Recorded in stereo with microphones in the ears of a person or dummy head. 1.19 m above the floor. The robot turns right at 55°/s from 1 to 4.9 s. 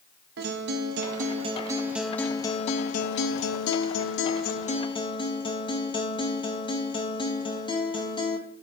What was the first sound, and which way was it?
A guitar, 55° right.